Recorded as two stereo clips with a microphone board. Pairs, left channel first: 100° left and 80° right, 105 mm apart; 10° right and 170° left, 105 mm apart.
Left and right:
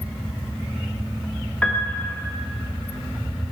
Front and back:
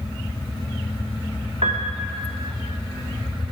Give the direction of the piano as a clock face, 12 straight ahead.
6 o'clock.